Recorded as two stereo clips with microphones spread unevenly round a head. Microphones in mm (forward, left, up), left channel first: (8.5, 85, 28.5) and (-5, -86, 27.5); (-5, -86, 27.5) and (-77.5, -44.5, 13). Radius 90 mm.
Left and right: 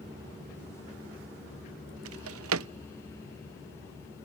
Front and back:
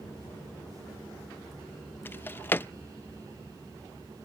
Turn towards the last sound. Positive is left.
turn(degrees=-95)